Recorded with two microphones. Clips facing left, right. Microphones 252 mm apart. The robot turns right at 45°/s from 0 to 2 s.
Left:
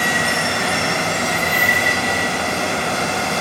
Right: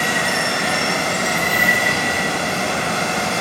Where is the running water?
170° left, 1.2 m; by 3.4 s 100° right, 1.2 m.